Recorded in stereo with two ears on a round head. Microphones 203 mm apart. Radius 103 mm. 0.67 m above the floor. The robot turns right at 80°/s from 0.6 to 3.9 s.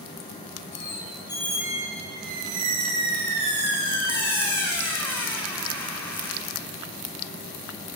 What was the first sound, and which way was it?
A squeak, 115° left.